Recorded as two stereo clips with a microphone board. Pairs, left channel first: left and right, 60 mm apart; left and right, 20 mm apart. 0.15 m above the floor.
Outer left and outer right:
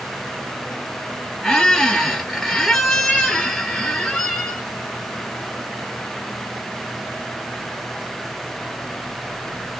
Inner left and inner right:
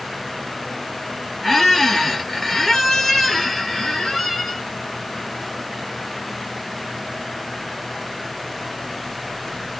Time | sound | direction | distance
1.4 | a squeak | 5° left (ahead or behind) | 1.8 m